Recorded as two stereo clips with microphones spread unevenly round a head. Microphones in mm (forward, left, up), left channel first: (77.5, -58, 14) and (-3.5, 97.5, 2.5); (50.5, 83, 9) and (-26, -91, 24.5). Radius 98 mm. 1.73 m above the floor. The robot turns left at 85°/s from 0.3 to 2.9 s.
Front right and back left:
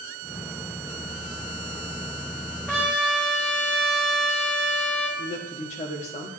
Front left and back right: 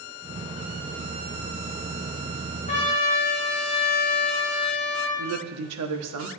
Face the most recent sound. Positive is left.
turn(degrees=-120)